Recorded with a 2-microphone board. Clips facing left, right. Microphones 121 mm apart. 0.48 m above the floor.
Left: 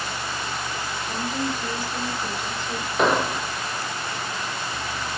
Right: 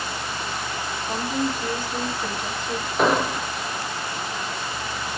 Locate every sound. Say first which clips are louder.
1.1 s a woman speaking: right 3 dB; 50° right (ahead or behind), 2 m
3.0 s an explosion: even; centre (ahead or behind), 0.9 m